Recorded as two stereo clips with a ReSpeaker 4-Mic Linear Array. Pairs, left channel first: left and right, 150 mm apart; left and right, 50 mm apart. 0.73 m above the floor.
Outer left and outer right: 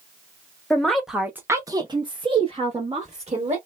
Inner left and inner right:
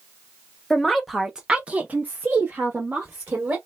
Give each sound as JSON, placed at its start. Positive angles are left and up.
{"t": 0.7, "sound": "a woman speaking", "side_deg": 5, "distance_m": 0.8}